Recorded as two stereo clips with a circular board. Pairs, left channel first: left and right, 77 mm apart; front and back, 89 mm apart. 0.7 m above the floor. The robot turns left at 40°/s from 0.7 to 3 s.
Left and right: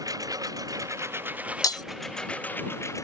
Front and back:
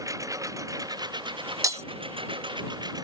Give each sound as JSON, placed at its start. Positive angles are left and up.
{"t": 0.0, "sound": "a lawn mower", "azimuth_deg": -130}
{"t": 1.6, "sound": "breaking glass", "azimuth_deg": 125}